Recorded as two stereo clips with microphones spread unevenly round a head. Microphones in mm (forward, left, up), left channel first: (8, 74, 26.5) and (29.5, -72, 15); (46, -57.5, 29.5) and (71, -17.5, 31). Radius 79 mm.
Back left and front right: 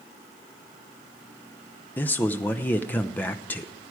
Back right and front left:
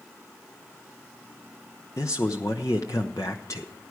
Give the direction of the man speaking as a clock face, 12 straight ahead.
6 o'clock.